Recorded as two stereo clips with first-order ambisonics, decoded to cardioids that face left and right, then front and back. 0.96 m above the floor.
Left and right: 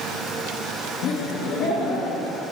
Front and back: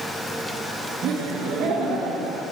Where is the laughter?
130° left, 0.9 m.